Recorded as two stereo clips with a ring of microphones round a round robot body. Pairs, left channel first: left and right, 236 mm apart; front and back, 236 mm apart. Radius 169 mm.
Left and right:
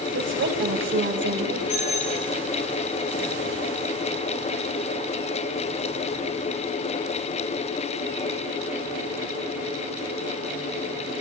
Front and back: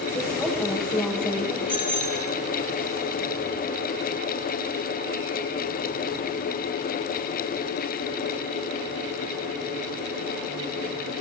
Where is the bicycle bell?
110° left, 6 m.